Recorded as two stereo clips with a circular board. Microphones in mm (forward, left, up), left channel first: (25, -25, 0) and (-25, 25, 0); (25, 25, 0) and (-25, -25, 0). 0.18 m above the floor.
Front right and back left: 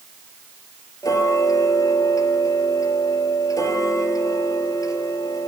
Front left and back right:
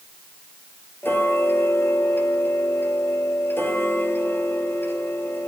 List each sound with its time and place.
1.0 s ticking: 15° right, 3.5 m